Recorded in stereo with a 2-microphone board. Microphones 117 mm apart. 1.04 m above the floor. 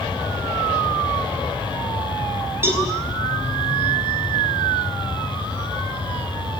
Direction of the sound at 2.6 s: 20° right (ahead or behind).